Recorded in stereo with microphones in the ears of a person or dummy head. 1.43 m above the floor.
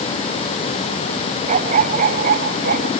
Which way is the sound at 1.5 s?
45° right (ahead or behind).